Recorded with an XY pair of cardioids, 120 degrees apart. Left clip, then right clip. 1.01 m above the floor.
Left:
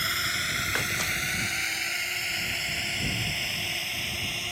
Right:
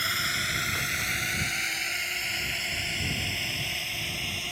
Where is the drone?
Straight ahead; by 4.5 s 5° left.